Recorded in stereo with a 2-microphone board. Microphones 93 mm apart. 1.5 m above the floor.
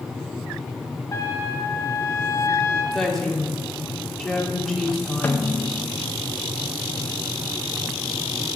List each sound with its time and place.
1.1 s a trumpet: 35° left (ahead or behind), 0.8 m
2.9 s a woman speaking: 5° left (ahead or behind), 1.3 m
5.2 s a snare drum: 20° left (ahead or behind), 0.6 m